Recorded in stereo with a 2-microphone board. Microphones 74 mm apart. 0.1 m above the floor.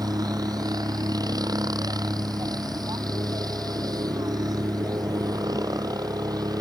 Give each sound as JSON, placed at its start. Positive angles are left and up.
{"t": 0.0, "sound": "a helicopter", "side_deg": -60}